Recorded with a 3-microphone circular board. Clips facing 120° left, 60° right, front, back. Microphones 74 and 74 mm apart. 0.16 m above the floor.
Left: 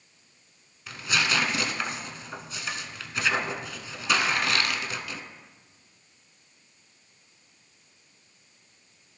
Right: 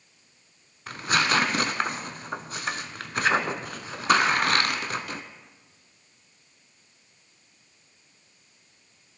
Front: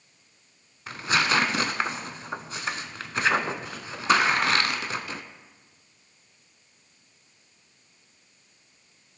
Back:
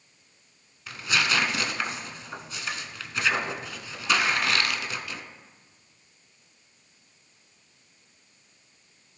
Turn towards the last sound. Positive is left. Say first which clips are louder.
# right 3 dB, front 2 dB
turn(degrees=-40)